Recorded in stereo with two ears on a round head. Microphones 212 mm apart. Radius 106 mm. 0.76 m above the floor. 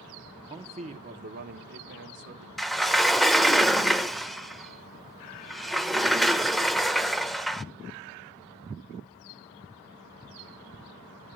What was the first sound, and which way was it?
A man speaking, 20° right (ahead or behind).